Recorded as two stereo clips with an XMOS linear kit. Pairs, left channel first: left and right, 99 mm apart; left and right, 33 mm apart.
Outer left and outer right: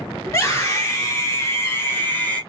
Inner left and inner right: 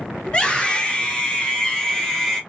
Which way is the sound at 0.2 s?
30° left (ahead or behind).